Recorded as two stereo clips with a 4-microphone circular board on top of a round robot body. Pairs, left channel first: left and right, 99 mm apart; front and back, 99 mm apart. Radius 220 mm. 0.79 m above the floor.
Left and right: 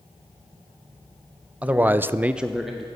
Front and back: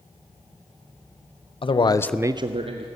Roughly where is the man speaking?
Ahead.